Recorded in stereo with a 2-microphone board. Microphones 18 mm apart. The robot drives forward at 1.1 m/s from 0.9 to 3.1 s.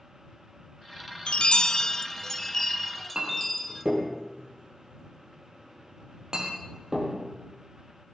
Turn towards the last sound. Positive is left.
turn(degrees=-40)  # may be behind; listen again after turning